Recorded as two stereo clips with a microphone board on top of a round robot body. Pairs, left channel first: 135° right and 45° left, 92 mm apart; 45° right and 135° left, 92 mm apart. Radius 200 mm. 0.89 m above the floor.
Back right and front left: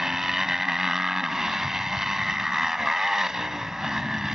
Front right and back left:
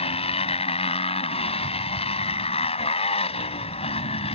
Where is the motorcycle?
40° right.